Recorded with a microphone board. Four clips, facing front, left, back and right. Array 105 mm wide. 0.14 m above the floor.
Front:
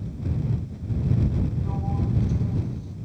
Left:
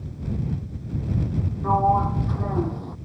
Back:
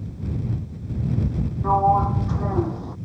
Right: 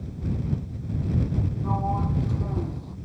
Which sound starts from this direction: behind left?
A sliding door, at 1.6 s.